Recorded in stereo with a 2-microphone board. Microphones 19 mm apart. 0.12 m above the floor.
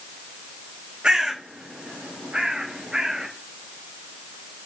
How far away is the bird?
About 1.2 m.